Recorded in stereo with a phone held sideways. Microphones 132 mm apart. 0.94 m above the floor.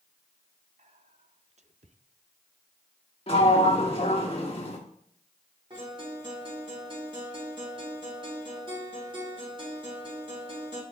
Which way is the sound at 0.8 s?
55° right (ahead or behind).